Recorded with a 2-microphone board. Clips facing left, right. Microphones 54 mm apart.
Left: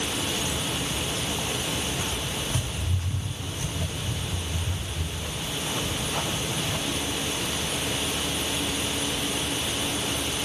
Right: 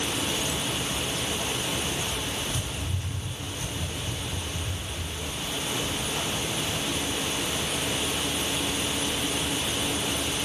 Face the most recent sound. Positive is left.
turn(degrees=50)  # may be behind; listen again after turning